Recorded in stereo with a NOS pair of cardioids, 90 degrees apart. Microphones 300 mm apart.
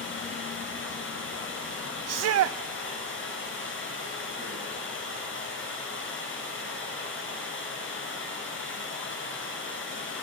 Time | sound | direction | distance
0.0 | running water | 40° left | 8 m
2.1 | a shout | 60° right | 0.7 m